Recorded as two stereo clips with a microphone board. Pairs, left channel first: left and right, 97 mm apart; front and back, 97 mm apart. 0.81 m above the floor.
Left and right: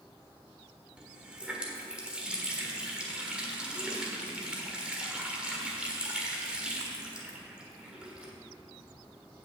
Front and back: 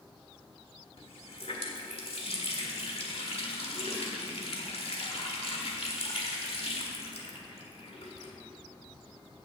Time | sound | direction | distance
1.0 | a running tap | 10° right | 1.5 m